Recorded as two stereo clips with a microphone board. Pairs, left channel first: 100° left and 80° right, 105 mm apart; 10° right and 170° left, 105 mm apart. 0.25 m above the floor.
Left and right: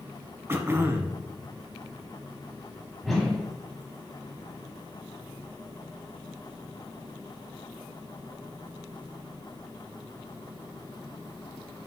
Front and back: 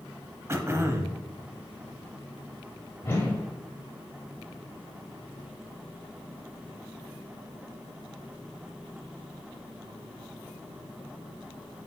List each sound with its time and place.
0.5 s throat clearing: 135° right, 0.7 m
3.0 s a whoosh: 15° left, 1.4 m